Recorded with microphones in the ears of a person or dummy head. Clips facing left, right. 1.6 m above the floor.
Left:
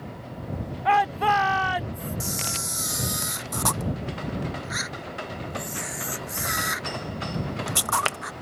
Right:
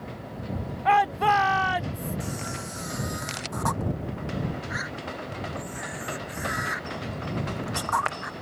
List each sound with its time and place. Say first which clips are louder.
0.8 s a shout: even; centre (ahead or behind)
2.2 s a camera shutter: even; 35° left (ahead or behind)